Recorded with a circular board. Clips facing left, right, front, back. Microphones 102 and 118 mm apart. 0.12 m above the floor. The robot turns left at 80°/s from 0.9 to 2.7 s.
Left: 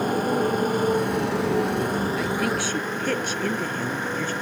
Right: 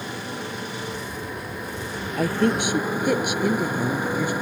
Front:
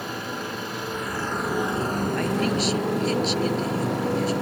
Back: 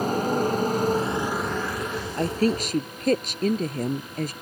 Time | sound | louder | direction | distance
0.0 | a motorcycle | left 10 dB, back 9 dB | 135° left | ?
2.2 | a woman speaking | right 3 dB, back 4 dB | 120° right | ?